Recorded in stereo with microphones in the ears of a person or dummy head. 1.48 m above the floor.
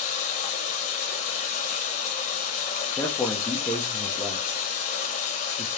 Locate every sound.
0.0 s running water: 35° left (ahead or behind), 1.1 m
3.0 s a man speaking: 5° left (ahead or behind), 0.6 m